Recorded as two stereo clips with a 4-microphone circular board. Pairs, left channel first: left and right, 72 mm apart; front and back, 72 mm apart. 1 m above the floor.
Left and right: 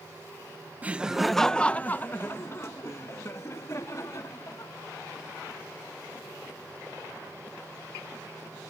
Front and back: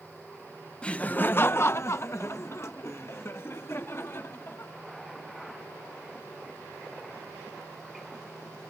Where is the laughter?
60° right; by 4.7 s 50° left.